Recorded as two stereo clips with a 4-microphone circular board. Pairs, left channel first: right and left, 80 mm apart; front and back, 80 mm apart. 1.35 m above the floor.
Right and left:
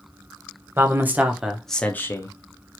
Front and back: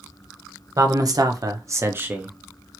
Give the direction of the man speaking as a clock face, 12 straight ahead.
7 o'clock.